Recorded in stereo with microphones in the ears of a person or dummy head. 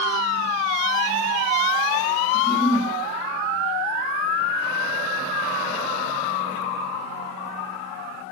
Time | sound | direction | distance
2.3 | a giggle | 15° right (ahead or behind) | 1.0 m